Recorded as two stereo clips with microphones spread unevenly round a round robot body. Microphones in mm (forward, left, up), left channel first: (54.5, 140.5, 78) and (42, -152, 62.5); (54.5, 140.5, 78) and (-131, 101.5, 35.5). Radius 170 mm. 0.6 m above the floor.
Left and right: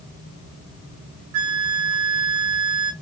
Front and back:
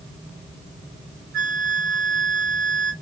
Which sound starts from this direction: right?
A flute, at 1.3 s.